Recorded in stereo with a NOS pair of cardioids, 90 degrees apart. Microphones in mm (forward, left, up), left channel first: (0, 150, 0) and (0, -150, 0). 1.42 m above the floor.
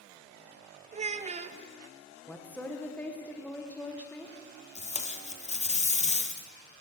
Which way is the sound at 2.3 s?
5° left.